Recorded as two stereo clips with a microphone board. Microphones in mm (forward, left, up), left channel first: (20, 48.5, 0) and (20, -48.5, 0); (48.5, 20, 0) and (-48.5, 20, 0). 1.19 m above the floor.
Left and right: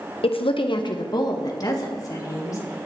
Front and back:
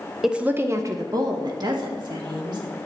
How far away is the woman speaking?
About 0.5 m.